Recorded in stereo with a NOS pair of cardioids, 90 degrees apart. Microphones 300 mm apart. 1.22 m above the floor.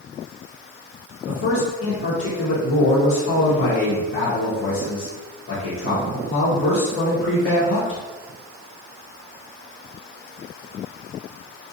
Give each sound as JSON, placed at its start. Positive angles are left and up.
{"t": 1.3, "sound": "a man speaking", "azimuth_deg": 45, "distance_m": 1.1}